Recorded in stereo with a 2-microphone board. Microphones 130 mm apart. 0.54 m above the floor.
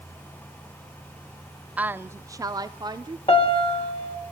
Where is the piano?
45° left (ahead or behind), 2 m.